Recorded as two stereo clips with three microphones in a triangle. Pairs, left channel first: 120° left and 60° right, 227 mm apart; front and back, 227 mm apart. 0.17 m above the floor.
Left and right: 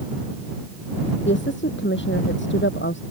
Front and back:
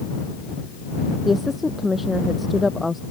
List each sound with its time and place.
1.2 s a woman speaking: 90° left